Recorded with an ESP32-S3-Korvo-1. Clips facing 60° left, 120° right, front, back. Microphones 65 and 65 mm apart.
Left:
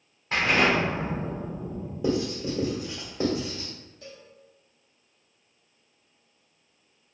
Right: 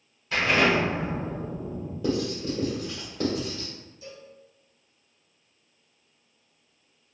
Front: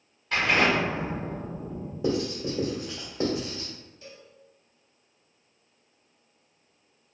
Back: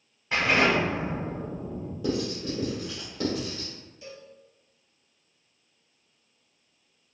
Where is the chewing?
I don't hear chewing.